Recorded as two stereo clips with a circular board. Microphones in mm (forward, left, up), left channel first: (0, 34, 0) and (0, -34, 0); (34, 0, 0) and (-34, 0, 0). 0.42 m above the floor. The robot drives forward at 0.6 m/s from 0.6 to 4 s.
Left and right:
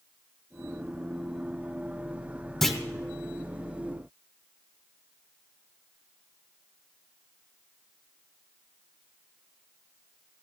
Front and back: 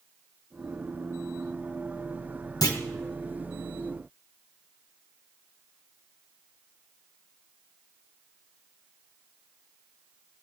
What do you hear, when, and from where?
2.6 s a clunk: 5° left, 1.6 m; by 2.8 s 10° left, 1.5 m